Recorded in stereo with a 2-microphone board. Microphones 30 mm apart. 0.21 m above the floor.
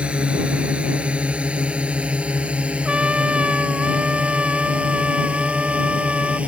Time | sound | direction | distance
0.0 | a drone | 45° right (ahead or behind) | ?
2.9 | a trumpet | 35° right (ahead or behind) | ?